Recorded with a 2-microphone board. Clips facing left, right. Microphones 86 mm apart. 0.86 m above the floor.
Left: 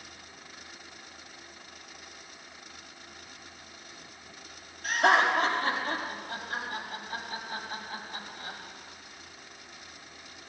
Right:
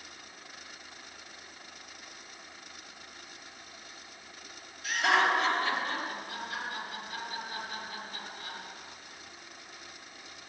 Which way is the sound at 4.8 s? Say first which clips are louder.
Left 3 dB; 50° left (ahead or behind).